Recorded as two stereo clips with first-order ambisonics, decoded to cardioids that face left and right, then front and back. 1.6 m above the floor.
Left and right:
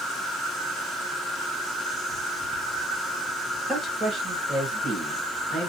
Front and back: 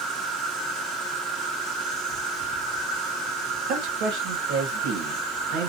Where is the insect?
170° left, 2 m.